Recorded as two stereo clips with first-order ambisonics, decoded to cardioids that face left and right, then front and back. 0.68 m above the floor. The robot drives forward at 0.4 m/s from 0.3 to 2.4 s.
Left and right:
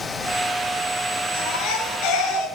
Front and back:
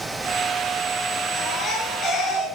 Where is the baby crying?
60° left, 6 m; by 2.5 s 65° left, 5.5 m.